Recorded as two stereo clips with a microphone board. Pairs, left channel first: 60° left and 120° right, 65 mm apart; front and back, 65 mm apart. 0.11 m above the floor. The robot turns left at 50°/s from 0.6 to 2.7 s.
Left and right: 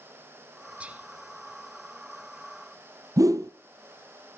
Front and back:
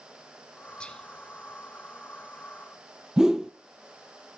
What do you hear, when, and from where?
0.8 s whispering: 65° right, 1.5 m; by 1.1 s 75° right, 1.5 m
3.2 s a whoosh: 100° right, 1.1 m